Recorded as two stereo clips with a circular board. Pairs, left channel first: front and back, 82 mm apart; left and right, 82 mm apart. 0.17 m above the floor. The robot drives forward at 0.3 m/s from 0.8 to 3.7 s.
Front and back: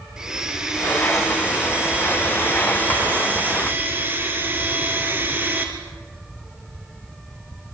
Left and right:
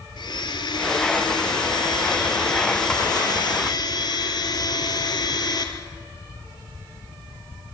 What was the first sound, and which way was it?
A blender, 100° left.